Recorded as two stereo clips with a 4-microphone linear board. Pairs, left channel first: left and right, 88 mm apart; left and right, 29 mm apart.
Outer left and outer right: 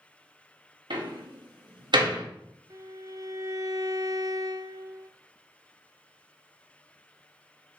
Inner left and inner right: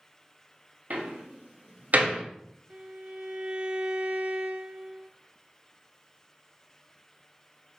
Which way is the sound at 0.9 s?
60° right (ahead or behind).